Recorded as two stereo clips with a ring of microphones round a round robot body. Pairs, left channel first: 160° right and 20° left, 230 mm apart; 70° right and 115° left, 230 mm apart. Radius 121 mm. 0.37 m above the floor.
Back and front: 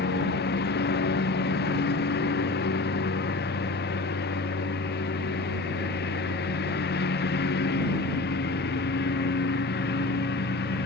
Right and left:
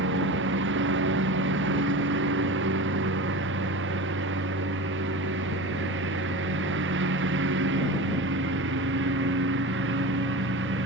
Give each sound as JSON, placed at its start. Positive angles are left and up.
{"t": 0.0, "sound": "a lawn mower", "azimuth_deg": 155}